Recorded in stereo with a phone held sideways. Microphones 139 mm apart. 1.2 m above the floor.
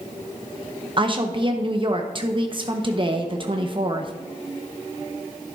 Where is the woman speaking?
35° right (ahead or behind), 0.8 m.